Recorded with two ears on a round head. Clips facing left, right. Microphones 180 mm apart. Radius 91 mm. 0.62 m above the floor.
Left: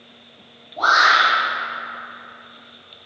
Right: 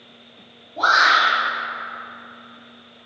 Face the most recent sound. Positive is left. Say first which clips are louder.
# left 1 dB
turn(degrees=-35)  # may be behind; listen again after turning